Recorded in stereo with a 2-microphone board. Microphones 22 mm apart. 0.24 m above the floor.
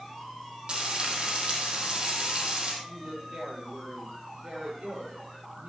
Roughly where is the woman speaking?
Right.